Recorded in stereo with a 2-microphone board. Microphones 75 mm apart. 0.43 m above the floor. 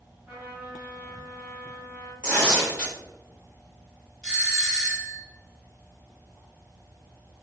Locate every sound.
0.3 s a trumpet: 20° right (ahead or behind), 1.7 m
2.2 s tearing paper: 15° left (ahead or behind), 2.0 m
4.2 s a doorbell: 5° left (ahead or behind), 1.7 m